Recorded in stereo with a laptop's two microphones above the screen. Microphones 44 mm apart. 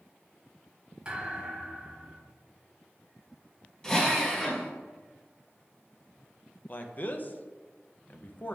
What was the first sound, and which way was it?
A thud, 20° right (ahead or behind).